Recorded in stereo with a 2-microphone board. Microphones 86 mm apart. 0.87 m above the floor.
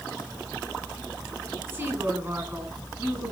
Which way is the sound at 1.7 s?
30° right (ahead or behind).